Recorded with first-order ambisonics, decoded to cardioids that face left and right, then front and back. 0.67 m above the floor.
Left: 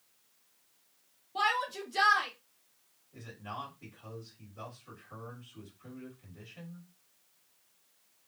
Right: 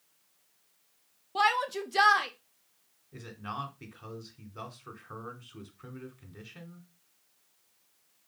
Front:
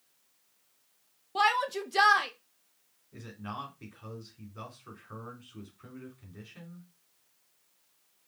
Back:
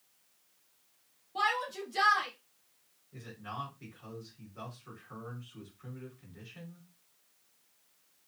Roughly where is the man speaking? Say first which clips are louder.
Right 4 dB, front 1 dB; right.